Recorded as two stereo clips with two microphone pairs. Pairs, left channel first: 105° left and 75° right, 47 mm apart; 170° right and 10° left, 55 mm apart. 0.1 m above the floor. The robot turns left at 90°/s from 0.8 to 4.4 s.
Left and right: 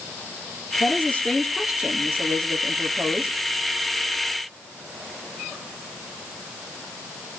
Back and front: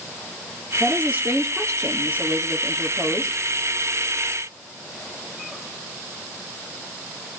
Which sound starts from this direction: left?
A woman speaking, at 0.8 s.